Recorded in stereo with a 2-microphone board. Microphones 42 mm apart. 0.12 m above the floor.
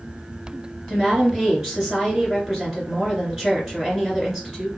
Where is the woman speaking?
15° right (ahead or behind), 2.0 m.